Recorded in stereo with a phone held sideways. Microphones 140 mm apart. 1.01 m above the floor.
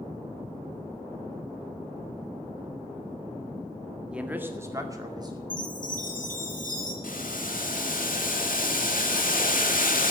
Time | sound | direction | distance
4.1 | a man speaking | 5° right (ahead or behind) | 1.7 m
5.5 | a chime | 75° left (ahead or behind) | 6 m
7.0 | boiling | 80° left | 2.0 m